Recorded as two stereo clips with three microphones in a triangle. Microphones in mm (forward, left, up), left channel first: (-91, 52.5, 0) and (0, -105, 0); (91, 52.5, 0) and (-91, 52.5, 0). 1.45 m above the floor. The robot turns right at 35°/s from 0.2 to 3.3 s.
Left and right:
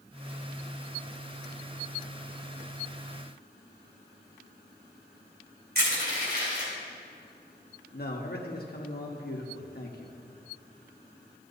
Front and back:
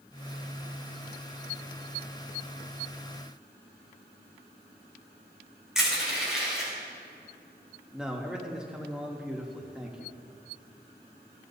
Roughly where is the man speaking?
Left.